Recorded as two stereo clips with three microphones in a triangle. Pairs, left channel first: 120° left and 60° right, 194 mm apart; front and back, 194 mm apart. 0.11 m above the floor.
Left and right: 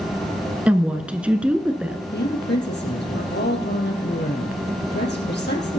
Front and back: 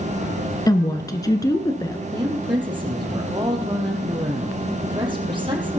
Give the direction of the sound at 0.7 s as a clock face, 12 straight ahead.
12 o'clock.